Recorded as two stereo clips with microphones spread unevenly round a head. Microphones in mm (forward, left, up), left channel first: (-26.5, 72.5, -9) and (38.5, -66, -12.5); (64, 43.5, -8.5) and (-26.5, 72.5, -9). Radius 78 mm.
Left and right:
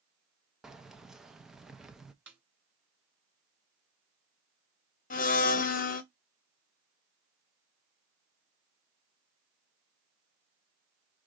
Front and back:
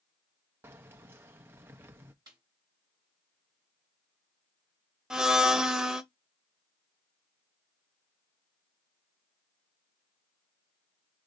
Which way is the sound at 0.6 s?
150° right.